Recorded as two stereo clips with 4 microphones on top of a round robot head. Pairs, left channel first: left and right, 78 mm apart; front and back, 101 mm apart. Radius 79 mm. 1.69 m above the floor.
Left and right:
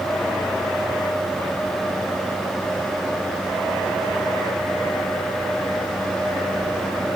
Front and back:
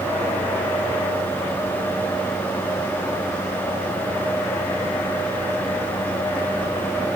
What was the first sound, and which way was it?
Only background noise.